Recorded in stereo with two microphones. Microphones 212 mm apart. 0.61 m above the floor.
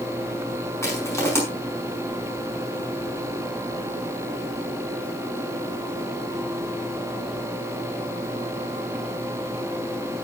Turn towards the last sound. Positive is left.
turn(degrees=15)  # may be behind; listen again after turning